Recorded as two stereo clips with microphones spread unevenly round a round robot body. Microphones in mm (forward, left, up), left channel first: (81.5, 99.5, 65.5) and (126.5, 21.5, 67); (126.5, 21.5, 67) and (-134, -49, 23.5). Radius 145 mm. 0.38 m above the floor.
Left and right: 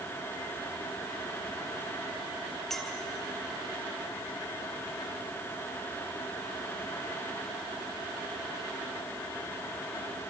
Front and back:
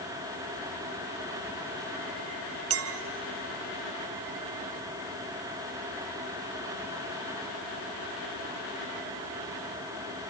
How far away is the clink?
About 0.8 m.